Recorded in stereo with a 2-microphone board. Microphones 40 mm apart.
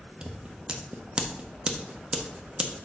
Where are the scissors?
25° right (ahead or behind), 0.9 m.